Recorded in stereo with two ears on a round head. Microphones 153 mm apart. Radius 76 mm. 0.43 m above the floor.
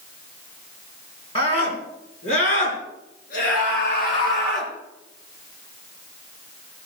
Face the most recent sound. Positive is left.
turn(degrees=60)  # may be behind; listen again after turning